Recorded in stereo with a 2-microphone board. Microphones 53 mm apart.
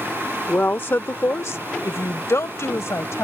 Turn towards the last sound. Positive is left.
turn(degrees=60)  # may be behind; listen again after turning